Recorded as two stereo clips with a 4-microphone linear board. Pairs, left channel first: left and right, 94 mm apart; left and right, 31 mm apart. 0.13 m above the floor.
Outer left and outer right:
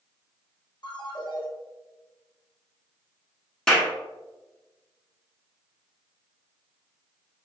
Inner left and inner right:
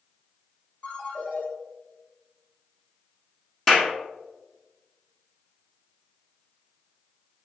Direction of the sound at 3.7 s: 10° left (ahead or behind).